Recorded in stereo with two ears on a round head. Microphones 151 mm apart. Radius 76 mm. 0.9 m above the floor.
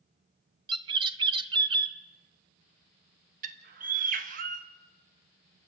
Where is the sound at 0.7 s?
30° right (ahead or behind), 0.7 m.